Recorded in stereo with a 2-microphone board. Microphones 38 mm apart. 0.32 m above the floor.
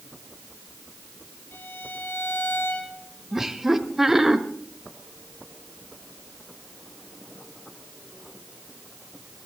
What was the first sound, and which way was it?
A violin, 75° left (ahead or behind).